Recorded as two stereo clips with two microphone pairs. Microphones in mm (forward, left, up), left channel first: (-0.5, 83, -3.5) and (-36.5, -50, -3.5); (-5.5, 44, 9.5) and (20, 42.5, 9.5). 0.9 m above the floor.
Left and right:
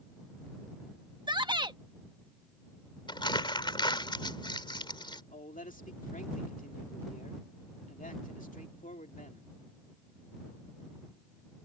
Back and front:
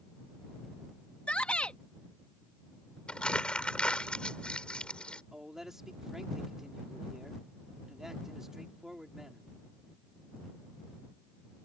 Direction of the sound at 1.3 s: 155° right.